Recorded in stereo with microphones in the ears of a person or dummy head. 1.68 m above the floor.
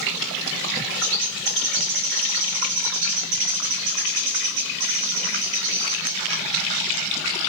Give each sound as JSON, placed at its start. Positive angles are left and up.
{"t": 1.0, "sound": "a bird", "side_deg": -65, "distance_m": 5.0}